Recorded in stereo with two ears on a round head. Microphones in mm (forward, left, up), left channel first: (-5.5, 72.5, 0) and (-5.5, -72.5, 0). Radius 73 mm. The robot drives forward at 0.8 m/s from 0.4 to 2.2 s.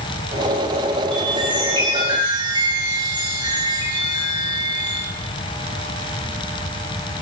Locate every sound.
1.1 s a chime: 30° right (ahead or behind), 6.5 m